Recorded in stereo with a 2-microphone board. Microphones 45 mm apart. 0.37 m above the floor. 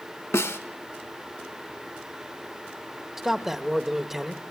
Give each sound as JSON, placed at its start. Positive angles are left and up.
{"t": 0.3, "sound": "a snare drum", "side_deg": 85, "distance_m": 1.2}
{"t": 3.2, "sound": "a man speaking", "side_deg": -5, "distance_m": 1.2}